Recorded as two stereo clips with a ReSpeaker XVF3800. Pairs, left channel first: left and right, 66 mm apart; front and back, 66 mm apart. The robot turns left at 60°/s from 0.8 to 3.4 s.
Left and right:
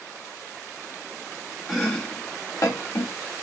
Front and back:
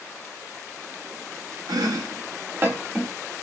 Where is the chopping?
175° right, 1.2 m; by 3.1 s 95° left, 1.2 m.